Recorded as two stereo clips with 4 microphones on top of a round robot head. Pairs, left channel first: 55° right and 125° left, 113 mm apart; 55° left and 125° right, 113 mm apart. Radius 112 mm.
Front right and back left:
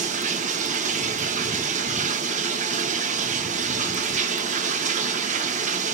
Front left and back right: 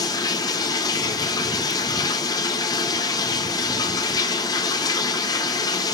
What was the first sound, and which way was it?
Running water, 110° left.